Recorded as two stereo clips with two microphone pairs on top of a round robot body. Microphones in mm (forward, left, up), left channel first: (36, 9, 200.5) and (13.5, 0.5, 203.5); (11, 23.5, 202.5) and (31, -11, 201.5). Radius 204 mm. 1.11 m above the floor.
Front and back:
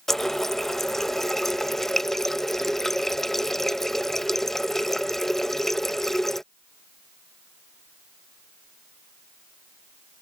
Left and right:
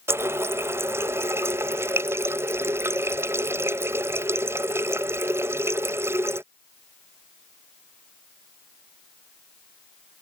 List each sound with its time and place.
0.1 s a running tap: 60° right